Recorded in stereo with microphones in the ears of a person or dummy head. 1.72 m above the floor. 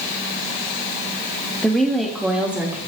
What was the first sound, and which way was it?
A woman speaking, 10° left (ahead or behind).